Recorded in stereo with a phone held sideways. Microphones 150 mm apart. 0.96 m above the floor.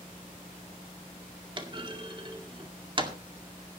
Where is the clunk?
35° right (ahead or behind), 2 m.